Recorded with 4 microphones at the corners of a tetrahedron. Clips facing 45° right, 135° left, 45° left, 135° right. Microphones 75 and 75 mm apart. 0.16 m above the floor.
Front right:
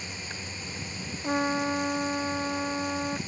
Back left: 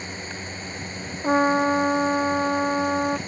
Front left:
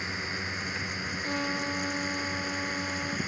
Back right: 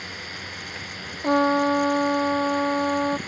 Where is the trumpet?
170° right.